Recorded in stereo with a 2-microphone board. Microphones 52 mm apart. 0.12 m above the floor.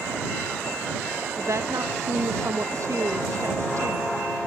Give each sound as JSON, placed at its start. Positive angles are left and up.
{"t": 1.4, "sound": "a woman speaking", "side_deg": -70}